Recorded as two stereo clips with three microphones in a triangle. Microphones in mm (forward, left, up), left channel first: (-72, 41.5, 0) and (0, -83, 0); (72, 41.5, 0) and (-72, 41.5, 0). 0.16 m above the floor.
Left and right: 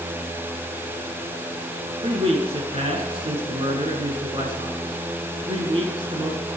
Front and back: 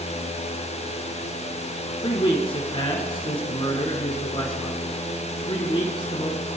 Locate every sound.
2.0 s a man speaking: 35° right, 2 m